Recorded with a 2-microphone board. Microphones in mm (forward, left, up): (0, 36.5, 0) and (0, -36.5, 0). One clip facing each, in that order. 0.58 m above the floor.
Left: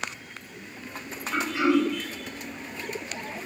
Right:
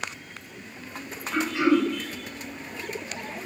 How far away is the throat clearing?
About 1.1 m.